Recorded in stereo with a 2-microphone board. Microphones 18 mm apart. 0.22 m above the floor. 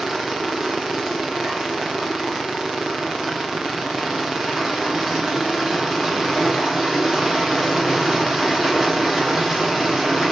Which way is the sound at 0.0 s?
20° right (ahead or behind).